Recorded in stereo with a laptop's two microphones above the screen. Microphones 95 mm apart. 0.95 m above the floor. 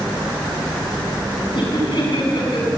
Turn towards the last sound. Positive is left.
turn(degrees=65)  # may be behind; listen again after turning